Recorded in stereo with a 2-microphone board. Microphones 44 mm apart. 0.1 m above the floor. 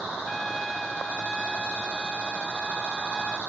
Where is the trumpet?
5° left (ahead or behind).